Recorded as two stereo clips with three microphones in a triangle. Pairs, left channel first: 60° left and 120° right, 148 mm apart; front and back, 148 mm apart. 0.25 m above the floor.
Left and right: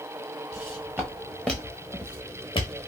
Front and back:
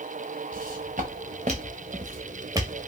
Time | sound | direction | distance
0.5 | footsteps | 170° left | 1.4 m